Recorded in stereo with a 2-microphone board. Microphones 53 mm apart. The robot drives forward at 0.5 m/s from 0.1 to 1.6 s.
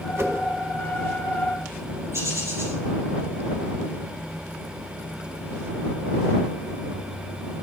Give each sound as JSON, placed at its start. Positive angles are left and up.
{"t": 0.2, "sound": "a whoosh", "side_deg": -55, "distance_m": 1.0}
{"t": 2.1, "sound": "a bird", "side_deg": -65, "distance_m": 6.0}